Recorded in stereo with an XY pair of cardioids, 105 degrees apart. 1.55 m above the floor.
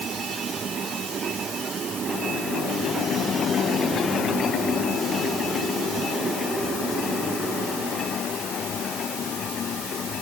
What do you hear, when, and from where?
Only background noise.